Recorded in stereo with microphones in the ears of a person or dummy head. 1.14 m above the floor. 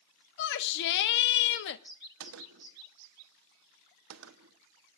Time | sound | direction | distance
0.4 | a shout | 70° left (ahead or behind) | 0.7 m
2.2 | a gunshot | 80° right | 1.2 m